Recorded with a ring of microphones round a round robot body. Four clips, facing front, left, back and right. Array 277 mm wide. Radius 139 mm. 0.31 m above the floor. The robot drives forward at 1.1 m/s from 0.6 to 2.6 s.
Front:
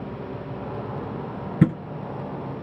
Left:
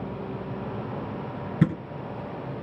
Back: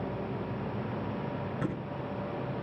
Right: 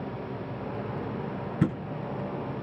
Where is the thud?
10° left, 2.5 m.